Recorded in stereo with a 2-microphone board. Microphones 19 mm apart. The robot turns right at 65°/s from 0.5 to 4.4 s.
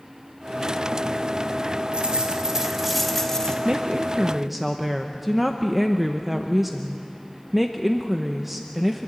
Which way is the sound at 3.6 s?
60° right.